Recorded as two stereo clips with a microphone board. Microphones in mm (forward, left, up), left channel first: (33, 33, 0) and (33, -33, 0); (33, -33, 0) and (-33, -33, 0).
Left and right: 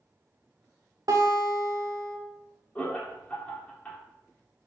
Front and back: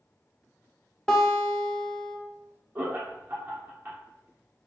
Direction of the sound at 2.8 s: 145° left.